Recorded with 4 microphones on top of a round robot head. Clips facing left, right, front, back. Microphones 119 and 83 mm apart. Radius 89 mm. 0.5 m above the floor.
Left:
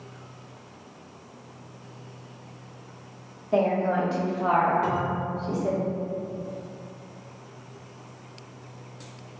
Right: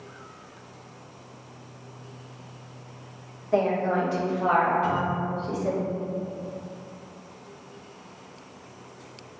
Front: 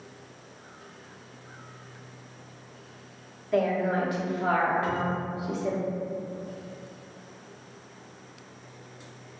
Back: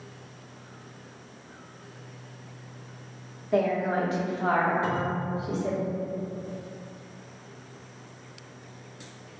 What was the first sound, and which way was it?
A woman speaking, 135° left.